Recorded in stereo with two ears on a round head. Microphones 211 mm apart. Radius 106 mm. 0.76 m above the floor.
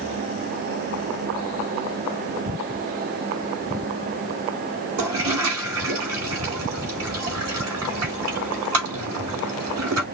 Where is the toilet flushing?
70° right (ahead or behind), 4 m.